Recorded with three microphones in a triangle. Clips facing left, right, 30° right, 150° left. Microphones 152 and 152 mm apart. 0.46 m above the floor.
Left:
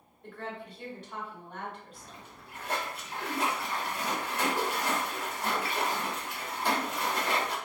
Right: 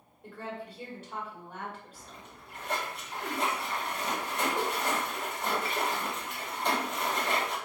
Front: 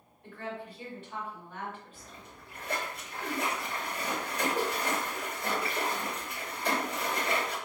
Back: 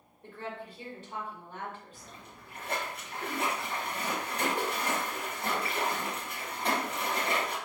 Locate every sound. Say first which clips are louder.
0.2 s a woman speaking: right 1 dB, front 1 dB; 170° right, 1.9 m
1.9 s a splash: even, even; 175° left, 1.6 m